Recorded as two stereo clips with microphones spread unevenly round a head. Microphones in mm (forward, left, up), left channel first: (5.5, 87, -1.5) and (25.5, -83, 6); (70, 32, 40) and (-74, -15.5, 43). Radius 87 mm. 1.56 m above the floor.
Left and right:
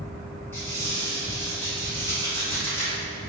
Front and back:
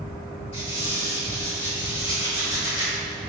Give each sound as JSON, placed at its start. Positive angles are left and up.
{"t": 0.5, "sound": "a squeak", "azimuth_deg": 30, "distance_m": 1.4}